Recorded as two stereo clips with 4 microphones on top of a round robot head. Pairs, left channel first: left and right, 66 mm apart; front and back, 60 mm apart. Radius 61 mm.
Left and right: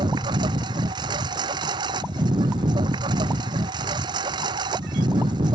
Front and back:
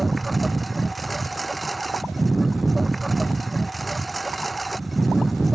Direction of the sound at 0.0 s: 90° right.